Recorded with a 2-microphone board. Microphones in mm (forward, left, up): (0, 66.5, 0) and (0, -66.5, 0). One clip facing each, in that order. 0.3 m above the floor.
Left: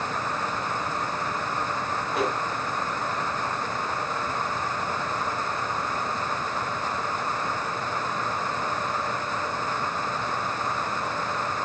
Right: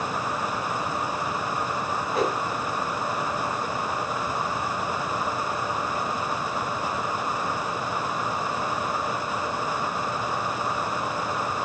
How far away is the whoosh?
About 2.5 m.